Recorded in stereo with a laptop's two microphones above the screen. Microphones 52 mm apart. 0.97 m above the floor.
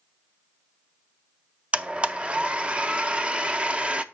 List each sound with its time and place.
1.7 s a blender: 25° right (ahead or behind), 0.6 m